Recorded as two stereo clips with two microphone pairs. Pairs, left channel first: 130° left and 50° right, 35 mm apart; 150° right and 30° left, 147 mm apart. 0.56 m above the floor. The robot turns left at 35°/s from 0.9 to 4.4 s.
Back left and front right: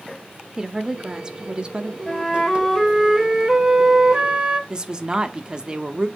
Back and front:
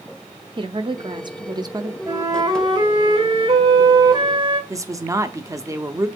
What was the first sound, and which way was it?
A woman speaking, 20° left.